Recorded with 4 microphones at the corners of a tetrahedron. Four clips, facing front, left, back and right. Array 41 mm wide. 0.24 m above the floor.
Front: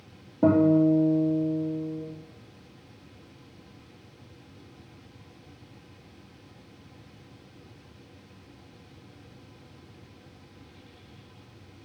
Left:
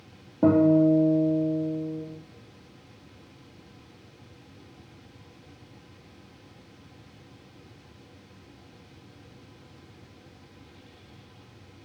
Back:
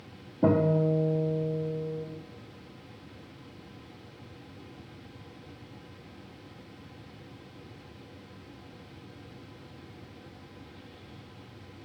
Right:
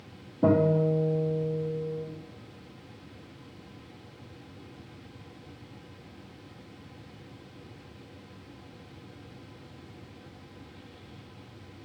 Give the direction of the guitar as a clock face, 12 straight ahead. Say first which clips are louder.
Left 4 dB, front 5 dB; 10 o'clock.